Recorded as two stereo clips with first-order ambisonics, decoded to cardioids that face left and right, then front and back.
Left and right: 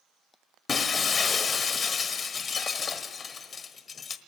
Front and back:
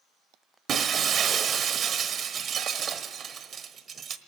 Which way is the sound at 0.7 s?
145° left.